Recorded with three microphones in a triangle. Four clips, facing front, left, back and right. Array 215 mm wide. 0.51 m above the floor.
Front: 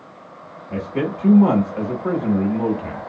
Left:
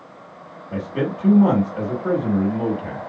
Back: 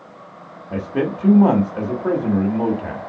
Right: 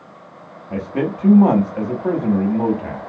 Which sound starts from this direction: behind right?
A man speaking, at 0.7 s.